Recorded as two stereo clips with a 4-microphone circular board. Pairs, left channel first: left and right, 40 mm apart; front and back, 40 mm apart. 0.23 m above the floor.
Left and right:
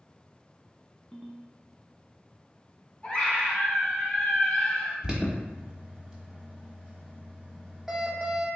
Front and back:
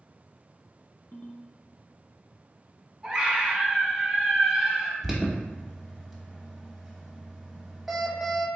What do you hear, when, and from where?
1.1 s a ringtone: 5° left, 0.7 m
3.0 s a scream: 120° left, 1.2 m
5.0 s an alarm: 95° right, 0.8 m